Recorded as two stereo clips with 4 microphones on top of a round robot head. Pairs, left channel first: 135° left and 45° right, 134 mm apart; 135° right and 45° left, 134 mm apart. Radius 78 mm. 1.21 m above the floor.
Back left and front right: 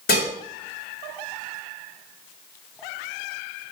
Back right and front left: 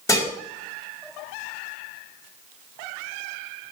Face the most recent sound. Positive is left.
turn(degrees=155)